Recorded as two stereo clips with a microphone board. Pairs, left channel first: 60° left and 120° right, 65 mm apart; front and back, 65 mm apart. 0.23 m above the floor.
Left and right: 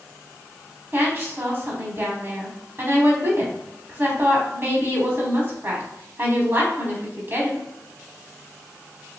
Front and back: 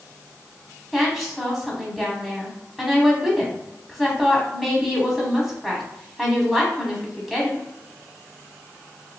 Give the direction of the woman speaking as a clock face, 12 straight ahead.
3 o'clock.